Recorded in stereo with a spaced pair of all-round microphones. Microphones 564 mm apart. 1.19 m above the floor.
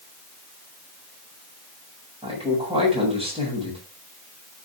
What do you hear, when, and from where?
2.2 s a man speaking: 10° right (ahead or behind), 8 m